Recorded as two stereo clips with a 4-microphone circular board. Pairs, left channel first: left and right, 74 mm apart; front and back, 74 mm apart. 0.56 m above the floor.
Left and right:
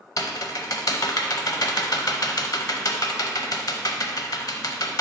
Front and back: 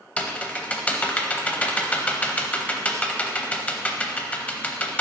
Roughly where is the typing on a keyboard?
Left.